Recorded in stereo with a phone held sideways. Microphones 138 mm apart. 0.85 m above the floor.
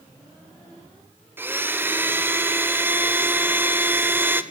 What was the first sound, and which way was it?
A blender, 15° right (ahead or behind).